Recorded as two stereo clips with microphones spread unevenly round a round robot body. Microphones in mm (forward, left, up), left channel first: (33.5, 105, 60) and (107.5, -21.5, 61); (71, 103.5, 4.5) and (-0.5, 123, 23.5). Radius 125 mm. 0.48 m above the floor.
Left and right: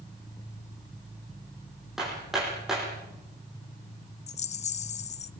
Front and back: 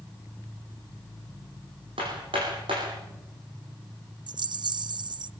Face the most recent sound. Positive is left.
turn(degrees=150)